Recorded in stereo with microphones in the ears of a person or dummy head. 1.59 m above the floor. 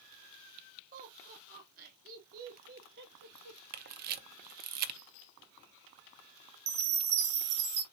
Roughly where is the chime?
Right.